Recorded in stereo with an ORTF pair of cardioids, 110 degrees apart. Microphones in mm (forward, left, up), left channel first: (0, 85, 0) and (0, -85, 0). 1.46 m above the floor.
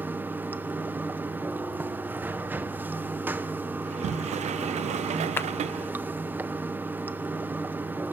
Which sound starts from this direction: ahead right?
A sliding door, at 3.8 s.